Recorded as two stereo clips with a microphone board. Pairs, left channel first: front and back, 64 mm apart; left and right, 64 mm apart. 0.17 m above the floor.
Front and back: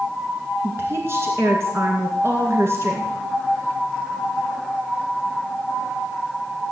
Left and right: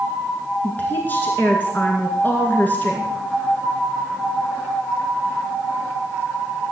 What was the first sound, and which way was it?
A woman speaking, 145° left.